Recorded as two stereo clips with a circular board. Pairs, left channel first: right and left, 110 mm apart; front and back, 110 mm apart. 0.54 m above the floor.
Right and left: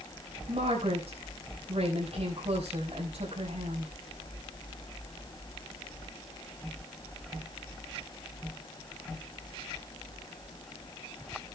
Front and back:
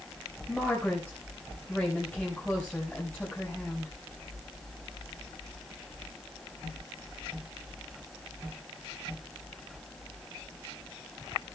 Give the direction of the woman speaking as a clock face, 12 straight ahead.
9 o'clock.